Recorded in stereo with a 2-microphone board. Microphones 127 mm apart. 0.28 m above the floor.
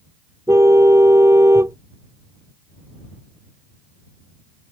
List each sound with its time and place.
0.5 s a car horn: 25° right (ahead or behind)